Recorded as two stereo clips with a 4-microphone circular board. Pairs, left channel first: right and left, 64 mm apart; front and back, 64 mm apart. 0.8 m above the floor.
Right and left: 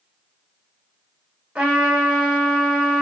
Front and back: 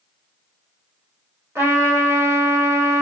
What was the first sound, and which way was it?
A trumpet, 150° left.